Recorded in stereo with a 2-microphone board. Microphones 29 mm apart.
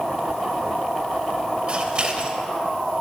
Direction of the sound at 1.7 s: 35° right (ahead or behind).